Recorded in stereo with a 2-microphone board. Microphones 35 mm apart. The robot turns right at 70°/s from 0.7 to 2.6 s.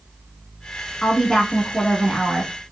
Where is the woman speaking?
15° left (ahead or behind), 1.3 m; by 2.5 s 10° left (ahead or behind), 1.3 m.